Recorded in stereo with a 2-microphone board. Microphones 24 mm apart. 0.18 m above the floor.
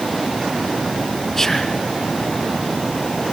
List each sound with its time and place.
1.4 s whispering: 15° left (ahead or behind), 2.0 m